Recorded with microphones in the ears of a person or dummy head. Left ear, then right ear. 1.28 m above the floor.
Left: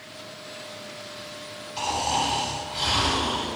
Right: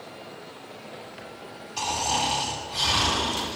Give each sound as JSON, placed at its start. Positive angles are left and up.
{"t": 1.8, "sound": "snoring", "side_deg": 0, "distance_m": 4.0}